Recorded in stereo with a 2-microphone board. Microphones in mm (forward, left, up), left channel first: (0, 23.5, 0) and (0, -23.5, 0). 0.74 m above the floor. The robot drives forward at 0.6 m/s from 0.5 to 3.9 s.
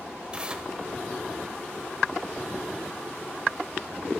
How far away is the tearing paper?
About 0.6 m.